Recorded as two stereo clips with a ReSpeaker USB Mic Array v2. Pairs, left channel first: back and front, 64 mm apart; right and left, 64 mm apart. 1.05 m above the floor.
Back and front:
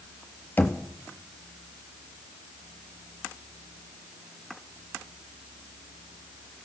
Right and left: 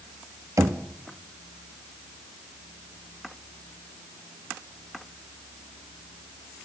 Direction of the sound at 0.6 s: 120° left.